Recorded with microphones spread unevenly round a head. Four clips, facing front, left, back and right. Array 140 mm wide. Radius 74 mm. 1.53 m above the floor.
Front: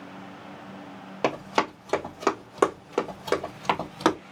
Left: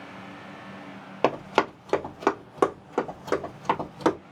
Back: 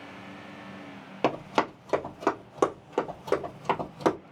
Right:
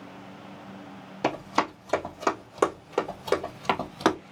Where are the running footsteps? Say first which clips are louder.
Left 3 dB, front 1 dB; 135° left, 1.6 m; by 4.2 s 90° right, 1.8 m.